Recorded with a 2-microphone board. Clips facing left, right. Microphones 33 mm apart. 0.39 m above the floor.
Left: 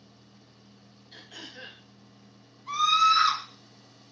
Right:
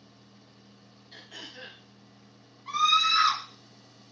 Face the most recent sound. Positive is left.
turn(degrees=-40)  # may be behind; listen again after turning